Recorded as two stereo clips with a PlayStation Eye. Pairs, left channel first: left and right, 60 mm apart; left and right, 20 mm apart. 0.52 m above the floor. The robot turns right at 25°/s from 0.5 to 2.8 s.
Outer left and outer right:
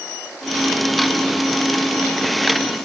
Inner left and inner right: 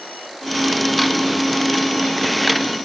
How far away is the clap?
I don't hear a clap.